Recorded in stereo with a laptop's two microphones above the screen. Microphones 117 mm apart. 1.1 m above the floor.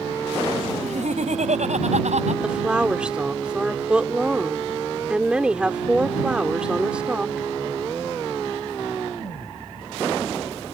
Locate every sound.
0.8 s laughter: 80° right; by 2.3 s 75° right (ahead or behind)
2.4 s a woman speaking: 10° right (ahead or behind)